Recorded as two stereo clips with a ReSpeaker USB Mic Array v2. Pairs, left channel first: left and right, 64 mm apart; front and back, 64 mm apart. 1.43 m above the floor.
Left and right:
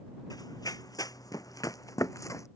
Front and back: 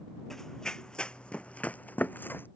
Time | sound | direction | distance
0.3 | running footsteps | 85° left | ?